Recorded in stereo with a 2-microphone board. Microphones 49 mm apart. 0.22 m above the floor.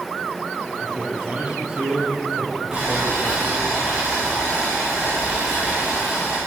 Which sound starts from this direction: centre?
Boiling, at 2.7 s.